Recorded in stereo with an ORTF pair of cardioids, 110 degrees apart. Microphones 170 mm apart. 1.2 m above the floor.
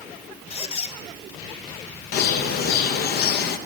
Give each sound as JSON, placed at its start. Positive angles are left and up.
{"t": 0.5, "sound": "a squeak", "azimuth_deg": 40, "distance_m": 0.9}
{"t": 2.1, "sound": "a bird", "azimuth_deg": 65, "distance_m": 0.9}